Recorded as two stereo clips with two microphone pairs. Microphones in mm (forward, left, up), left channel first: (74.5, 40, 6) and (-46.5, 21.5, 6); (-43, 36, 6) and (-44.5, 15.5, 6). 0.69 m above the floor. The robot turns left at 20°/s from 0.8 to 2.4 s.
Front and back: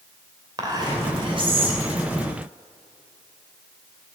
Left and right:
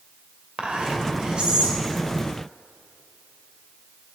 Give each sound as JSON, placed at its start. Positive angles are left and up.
{"t": 0.6, "sound": "whispering", "azimuth_deg": -115, "distance_m": 2.5}